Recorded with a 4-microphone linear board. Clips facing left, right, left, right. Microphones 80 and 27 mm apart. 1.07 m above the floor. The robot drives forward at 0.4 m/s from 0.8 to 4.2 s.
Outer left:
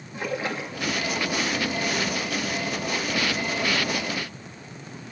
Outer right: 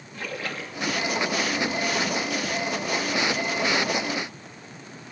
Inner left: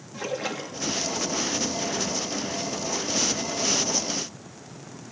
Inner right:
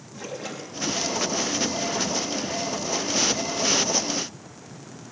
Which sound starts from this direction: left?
A splash, at 0.1 s.